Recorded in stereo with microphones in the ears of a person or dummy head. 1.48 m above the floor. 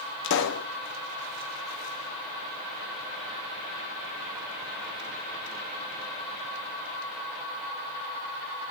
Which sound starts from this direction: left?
A pop, at 0.2 s.